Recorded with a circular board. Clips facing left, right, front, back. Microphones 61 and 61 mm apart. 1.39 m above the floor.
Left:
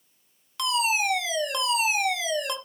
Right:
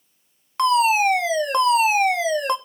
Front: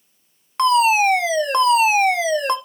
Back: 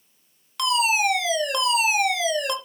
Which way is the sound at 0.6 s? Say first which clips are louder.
Right 9 dB, front 7 dB; 50° right.